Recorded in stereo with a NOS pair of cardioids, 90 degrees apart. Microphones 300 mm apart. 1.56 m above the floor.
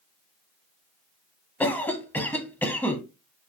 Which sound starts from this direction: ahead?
A cough, at 1.6 s.